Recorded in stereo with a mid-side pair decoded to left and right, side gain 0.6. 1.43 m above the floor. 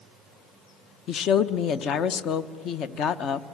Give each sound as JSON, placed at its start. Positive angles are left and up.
{"t": 1.1, "sound": "a woman speaking", "azimuth_deg": 55, "distance_m": 1.0}